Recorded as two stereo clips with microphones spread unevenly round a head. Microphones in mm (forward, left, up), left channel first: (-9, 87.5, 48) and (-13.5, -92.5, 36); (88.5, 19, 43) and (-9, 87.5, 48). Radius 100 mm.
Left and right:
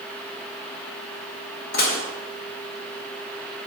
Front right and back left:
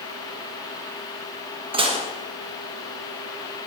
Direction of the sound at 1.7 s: 115° left.